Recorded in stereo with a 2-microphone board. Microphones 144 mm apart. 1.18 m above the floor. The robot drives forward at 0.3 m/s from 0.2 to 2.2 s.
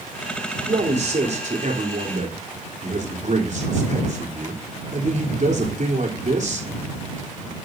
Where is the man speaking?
55° right (ahead or behind), 3.5 m; by 6.7 s 60° right (ahead or behind), 3.5 m.